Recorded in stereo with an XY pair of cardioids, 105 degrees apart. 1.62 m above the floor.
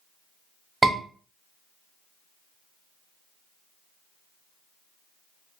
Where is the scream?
25° right, 1.0 m.